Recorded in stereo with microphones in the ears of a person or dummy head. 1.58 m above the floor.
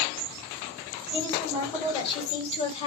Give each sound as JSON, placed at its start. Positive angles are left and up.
{"t": 1.1, "sound": "a woman speaking", "side_deg": 25, "distance_m": 5.5}